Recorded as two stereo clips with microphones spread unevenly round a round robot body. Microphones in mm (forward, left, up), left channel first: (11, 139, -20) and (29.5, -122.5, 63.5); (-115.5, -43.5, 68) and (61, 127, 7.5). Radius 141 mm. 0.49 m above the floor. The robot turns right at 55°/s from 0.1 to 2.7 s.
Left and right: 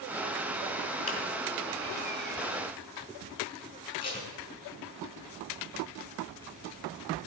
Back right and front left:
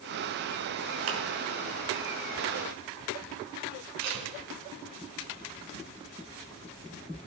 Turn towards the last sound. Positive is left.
turn(degrees=25)